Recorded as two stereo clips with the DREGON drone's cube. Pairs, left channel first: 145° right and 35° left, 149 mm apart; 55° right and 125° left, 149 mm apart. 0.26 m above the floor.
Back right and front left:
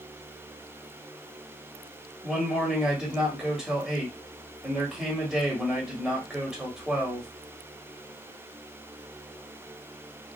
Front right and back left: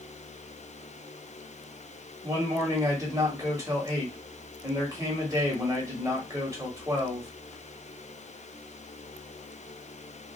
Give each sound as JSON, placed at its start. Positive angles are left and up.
{"t": 2.2, "sound": "a man speaking", "azimuth_deg": 115, "distance_m": 1.2}